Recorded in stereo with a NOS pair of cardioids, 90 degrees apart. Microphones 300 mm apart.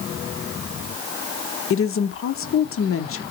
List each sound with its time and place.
1.7 s a woman speaking: 45° left, 0.7 m